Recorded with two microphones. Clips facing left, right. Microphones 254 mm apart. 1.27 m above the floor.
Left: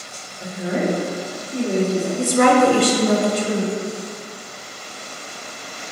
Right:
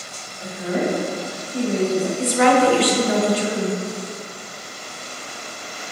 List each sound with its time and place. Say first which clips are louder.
0.4 s a woman speaking: left 1 dB; 35° left (ahead or behind), 1.2 m; by 2.1 s 75° left (ahead or behind), 2.5 m
2.2 s a woman speaking: left 2 dB; 45° left (ahead or behind), 0.5 m